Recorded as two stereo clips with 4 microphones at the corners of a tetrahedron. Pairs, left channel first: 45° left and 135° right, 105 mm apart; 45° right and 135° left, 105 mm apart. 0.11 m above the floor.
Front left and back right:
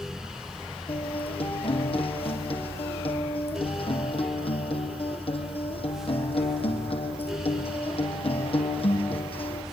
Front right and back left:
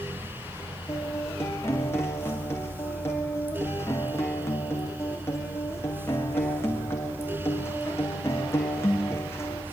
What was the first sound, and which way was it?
A guitar, 20° left.